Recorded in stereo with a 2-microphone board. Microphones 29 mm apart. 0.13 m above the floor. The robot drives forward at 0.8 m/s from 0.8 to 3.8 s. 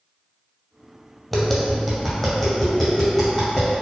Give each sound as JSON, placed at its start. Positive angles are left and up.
{"t": 1.3, "sound": "tapping", "side_deg": 10, "distance_m": 1.0}